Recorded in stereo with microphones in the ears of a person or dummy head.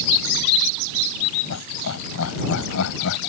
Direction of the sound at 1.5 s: 90° left.